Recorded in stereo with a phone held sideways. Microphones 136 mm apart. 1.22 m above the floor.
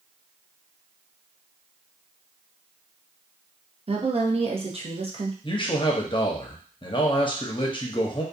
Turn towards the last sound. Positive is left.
turn(degrees=40)  # may be behind; listen again after turning